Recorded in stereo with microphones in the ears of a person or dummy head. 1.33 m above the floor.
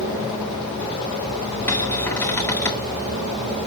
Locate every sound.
1.7 s a cupboard door: 15° left (ahead or behind), 0.9 m